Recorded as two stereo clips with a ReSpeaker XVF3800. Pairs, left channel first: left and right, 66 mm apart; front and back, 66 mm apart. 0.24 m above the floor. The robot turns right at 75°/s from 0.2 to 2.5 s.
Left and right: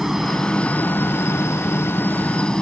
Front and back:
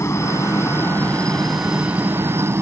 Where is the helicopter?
10° right; by 2.6 s 160° left.